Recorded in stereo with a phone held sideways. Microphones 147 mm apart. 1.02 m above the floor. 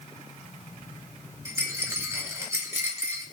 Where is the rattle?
20° right (ahead or behind), 1.2 m.